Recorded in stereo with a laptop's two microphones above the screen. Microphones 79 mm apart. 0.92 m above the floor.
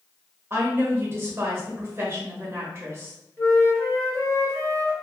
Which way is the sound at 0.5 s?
30° right (ahead or behind).